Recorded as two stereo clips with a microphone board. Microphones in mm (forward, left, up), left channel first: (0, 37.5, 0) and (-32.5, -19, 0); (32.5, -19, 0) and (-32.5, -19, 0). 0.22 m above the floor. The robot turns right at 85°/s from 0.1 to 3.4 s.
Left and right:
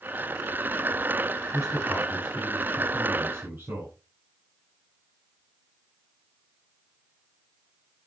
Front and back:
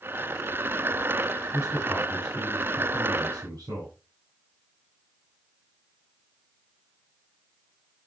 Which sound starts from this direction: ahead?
A man speaking, at 1.5 s.